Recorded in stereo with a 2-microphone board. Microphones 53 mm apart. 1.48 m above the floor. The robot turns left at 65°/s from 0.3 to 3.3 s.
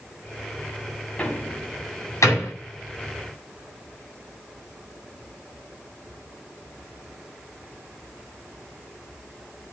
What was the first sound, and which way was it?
A door slam, 20° left (ahead or behind).